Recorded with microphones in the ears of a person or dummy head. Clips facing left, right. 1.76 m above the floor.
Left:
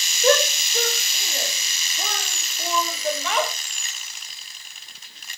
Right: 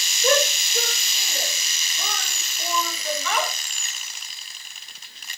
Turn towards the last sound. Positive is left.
turn(degrees=20)  # may be behind; listen again after turning